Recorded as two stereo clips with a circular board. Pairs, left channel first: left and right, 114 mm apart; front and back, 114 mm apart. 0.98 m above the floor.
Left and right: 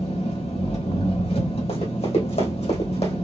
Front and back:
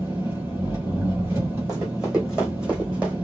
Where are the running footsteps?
100° left, 3.5 m.